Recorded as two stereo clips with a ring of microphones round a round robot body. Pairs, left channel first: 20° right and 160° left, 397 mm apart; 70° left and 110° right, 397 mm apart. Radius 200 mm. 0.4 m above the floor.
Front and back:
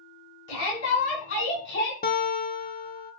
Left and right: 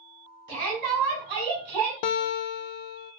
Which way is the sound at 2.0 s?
45° left.